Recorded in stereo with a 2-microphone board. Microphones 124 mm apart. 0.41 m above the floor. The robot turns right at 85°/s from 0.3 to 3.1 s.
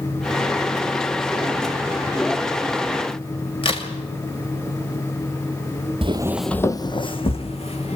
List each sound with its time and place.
3.6 s a crack: 50° left (ahead or behind), 2.5 m
6.0 s footsteps: 50° right (ahead or behind), 0.6 m; by 8.0 s 55° left (ahead or behind), 2 m